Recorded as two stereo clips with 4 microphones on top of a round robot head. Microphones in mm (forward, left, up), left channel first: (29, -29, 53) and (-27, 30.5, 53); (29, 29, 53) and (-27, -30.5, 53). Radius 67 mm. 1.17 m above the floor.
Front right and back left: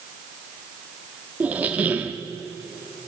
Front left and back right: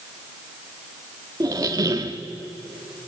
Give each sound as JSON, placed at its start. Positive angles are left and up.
{"t": 1.4, "sound": "a squeak", "azimuth_deg": -160, "distance_m": 0.7}